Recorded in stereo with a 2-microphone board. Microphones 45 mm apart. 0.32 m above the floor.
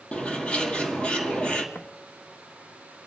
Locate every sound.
0.1 s a bird: 25° left (ahead or behind), 2 m
1.8 s footsteps: 40° left (ahead or behind), 1.4 m; by 3.1 s 65° left (ahead or behind), 1.6 m